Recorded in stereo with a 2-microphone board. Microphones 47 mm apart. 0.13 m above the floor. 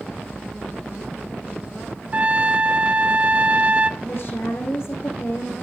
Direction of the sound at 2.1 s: 35° right (ahead or behind).